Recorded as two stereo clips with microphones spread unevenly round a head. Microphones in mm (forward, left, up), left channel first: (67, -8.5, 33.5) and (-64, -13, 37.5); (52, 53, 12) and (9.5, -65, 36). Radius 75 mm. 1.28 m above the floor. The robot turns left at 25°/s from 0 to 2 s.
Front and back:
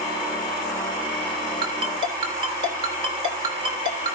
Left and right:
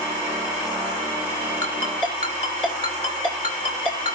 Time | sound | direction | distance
1.6 | a ringtone | 140° left | 3 m